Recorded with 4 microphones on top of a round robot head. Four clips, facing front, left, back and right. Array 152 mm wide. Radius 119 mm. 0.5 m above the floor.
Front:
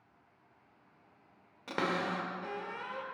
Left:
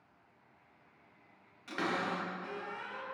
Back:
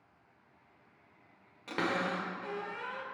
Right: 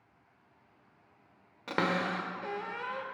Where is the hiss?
I don't hear a hiss.